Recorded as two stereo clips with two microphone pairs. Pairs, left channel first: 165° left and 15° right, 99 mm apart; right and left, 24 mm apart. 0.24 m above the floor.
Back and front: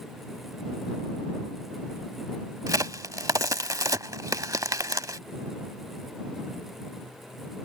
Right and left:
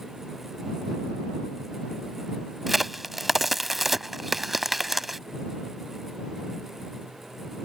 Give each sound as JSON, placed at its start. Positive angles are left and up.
{"t": 2.7, "sound": "a crack", "azimuth_deg": 10}